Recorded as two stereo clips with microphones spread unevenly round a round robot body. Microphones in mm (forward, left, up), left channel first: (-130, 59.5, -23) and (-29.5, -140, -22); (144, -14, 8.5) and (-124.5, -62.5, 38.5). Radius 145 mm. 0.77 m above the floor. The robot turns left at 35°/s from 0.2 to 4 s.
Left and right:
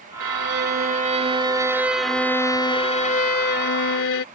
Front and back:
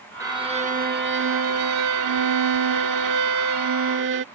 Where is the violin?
90° right; by 4.2 s 140° left.